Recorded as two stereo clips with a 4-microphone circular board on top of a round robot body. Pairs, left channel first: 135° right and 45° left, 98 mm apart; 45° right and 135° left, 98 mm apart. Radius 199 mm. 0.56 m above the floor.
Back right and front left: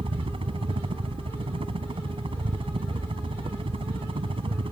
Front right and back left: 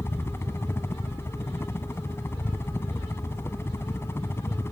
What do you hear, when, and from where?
0.0 s a helicopter: 20° left